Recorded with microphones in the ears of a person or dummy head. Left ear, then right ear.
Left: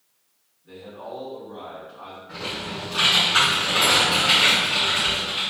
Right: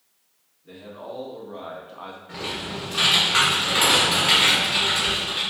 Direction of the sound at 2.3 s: 20° right (ahead or behind).